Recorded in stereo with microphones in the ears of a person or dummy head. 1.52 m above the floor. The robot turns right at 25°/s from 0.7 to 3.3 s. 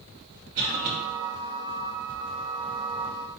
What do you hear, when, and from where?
0.6 s a cough: 55° right (ahead or behind), 4 m; by 1.0 s 50° right (ahead or behind), 4 m